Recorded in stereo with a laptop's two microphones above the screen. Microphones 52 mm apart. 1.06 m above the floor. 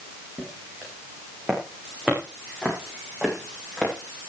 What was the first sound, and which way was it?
Footsteps, 25° right (ahead or behind).